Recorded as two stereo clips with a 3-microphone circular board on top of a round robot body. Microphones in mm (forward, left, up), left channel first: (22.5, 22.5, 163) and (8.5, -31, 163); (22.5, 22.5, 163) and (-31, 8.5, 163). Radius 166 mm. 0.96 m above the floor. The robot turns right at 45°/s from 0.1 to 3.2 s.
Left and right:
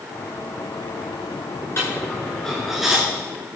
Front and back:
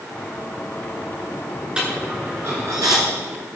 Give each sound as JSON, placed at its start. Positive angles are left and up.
{"t": 1.8, "sound": "a dropped coin", "azimuth_deg": 125, "distance_m": 1.2}